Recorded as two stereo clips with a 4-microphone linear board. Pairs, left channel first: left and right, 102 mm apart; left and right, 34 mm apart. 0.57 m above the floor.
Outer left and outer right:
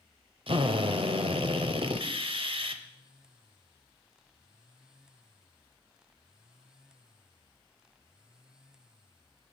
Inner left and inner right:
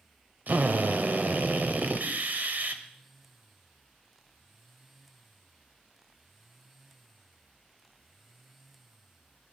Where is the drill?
60° right (ahead or behind), 1.3 m.